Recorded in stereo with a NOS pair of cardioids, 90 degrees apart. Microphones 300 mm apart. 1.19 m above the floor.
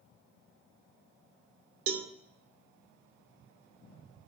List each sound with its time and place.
1.9 s a cowbell: 45° right, 0.7 m